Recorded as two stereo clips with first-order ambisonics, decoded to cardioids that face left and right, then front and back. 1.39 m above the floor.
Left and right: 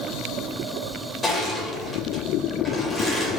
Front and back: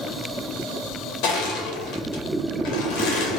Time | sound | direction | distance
1.2 | crushing | 10° left | 1.5 m